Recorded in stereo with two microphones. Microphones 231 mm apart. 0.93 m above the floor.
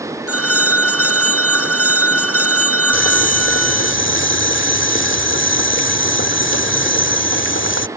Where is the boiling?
60° left (ahead or behind).